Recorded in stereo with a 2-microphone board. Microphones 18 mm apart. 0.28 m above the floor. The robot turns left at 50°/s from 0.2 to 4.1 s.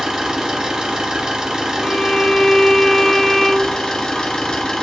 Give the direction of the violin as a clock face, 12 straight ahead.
10 o'clock.